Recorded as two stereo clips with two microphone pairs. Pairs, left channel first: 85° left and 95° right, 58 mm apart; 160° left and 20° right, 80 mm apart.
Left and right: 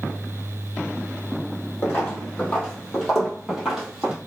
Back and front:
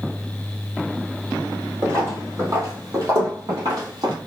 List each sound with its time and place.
1.8 s footsteps: 30° left, 1.7 m; by 4.1 s 25° right, 1.6 m